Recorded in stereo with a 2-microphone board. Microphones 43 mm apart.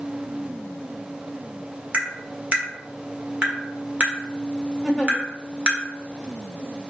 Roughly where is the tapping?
Right.